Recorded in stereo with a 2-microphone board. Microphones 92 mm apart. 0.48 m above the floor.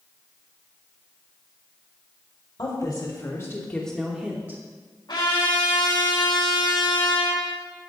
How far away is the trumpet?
About 4 m.